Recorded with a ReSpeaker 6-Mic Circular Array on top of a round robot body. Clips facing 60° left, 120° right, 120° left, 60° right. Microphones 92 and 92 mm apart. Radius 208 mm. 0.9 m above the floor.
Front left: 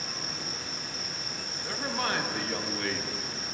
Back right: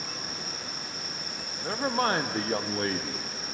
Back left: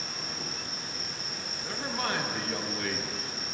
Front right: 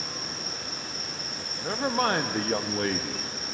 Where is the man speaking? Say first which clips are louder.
Back right 6 dB, front right 8 dB; 85° right, 0.7 m.